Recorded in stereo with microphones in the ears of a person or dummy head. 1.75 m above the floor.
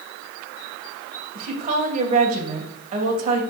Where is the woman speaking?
40° right (ahead or behind), 1.9 m.